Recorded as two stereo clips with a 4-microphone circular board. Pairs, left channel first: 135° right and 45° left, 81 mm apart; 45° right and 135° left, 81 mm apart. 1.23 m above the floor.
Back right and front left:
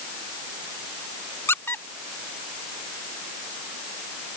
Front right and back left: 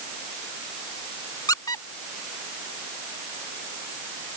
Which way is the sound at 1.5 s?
75° right.